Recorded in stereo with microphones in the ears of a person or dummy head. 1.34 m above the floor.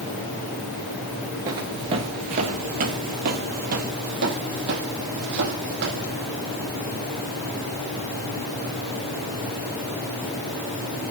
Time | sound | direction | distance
1.5 | footsteps | 20° right (ahead or behind) | 1.3 m